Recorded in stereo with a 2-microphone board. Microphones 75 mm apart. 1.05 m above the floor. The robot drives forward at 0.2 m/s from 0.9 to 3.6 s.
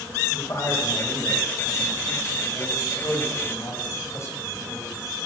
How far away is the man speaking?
About 5.5 m.